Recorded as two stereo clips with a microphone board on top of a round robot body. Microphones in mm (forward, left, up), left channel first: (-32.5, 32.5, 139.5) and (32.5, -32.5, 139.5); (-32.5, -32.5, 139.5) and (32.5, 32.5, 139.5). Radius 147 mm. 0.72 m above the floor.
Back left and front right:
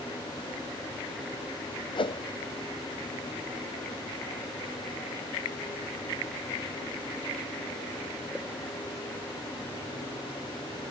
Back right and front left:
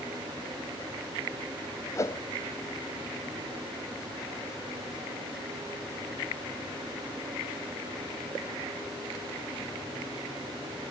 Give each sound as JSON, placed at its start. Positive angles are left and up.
{"t": 1.9, "sound": "a whoosh", "azimuth_deg": 165}